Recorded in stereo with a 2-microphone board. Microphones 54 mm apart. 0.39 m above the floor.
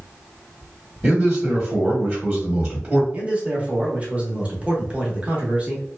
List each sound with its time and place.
1.0 s a man speaking: 15° right (ahead or behind), 1.3 m
3.1 s a man speaking: 25° right (ahead or behind), 0.9 m